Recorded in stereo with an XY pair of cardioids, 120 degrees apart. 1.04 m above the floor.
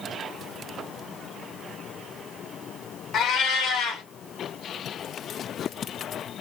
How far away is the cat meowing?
About 0.9 m.